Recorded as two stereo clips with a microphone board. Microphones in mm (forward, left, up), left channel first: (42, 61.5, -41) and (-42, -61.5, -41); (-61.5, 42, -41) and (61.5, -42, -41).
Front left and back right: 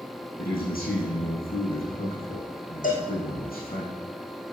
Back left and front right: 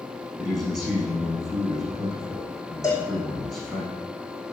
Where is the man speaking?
55° left, 6 m.